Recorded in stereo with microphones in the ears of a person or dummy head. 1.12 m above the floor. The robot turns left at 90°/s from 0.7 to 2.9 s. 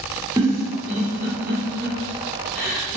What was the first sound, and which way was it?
A giggle, 20° right (ahead or behind).